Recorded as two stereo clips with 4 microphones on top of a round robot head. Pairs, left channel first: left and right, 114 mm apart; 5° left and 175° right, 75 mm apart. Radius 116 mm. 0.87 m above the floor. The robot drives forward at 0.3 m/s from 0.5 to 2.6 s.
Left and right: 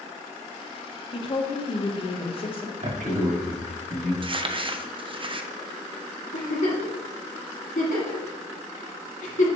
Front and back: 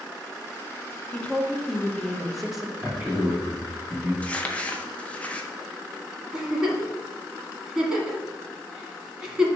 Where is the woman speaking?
70° left, 1.3 m; by 2.7 s 95° left, 1.2 m.